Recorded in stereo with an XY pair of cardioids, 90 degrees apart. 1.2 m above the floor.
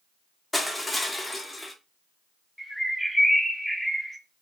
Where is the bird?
Straight ahead, 0.7 m.